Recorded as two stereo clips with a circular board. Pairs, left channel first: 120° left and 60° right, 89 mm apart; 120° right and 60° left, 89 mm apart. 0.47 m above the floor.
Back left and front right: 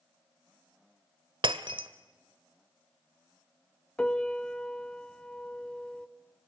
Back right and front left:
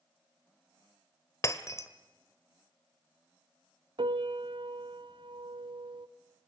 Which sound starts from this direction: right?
Breaking glass, at 1.4 s.